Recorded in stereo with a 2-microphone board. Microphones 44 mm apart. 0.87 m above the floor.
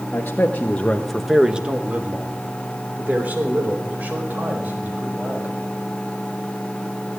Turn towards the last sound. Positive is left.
turn(degrees=-40)  # may be behind; listen again after turning